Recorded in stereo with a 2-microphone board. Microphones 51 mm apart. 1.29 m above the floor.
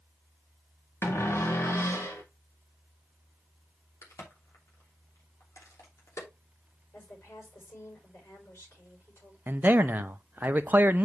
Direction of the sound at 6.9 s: 55° left (ahead or behind).